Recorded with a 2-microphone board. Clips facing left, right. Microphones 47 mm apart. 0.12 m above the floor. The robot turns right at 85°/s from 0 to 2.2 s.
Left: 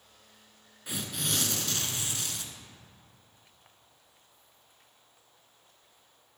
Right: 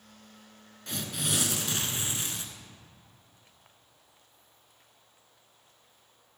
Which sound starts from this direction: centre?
Tearing paper, at 0.9 s.